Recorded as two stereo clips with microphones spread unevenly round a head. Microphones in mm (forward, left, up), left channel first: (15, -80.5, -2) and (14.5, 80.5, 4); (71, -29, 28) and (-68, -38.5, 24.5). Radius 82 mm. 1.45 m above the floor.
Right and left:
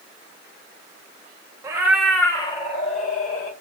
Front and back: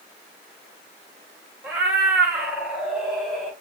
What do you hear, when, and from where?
1.6 s a cat meowing: 120° left, 0.9 m; by 3.5 s 85° right, 1.3 m